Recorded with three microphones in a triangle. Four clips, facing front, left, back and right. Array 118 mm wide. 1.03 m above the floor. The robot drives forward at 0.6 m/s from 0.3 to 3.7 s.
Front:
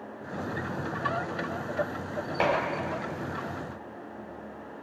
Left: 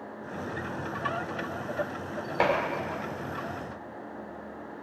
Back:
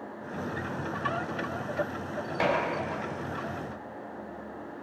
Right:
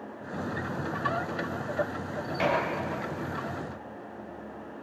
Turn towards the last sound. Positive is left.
turn(degrees=90)